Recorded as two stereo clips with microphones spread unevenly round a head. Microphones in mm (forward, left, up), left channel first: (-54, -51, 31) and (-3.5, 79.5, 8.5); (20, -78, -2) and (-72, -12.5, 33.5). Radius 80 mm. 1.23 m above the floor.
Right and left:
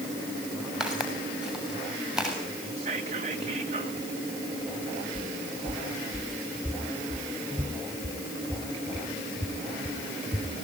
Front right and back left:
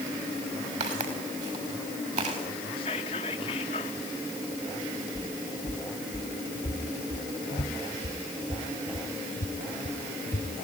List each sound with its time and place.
0.8 s footsteps: 155° left, 6.5 m
2.8 s whispering: 15° left, 1.1 m
5.2 s footsteps: 10° right, 3 m; by 10.5 s 5° left, 5.5 m